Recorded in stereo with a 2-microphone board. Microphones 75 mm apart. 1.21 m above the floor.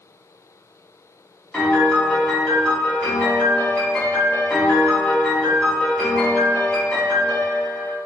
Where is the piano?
10° left (ahead or behind), 1.3 m.